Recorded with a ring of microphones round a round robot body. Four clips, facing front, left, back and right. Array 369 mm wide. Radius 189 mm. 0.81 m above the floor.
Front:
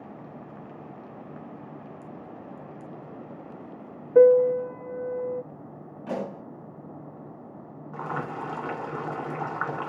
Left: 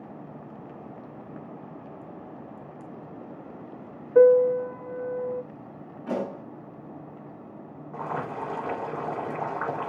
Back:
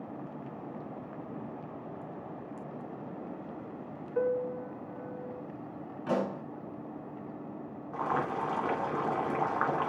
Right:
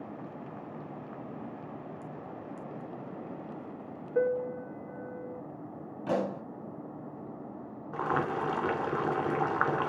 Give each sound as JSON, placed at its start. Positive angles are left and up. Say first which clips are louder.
{"t": 4.2, "sound": "a piano", "louder": "left 13 dB, front 15 dB", "azimuth_deg": 35, "distance_m": 0.6}
{"t": 6.1, "sound": "a pop", "louder": "even, back 1 dB", "azimuth_deg": -115, "distance_m": 3.5}
{"t": 7.9, "sound": "boiling", "louder": "right 2 dB, back 1 dB", "azimuth_deg": -85, "distance_m": 4.0}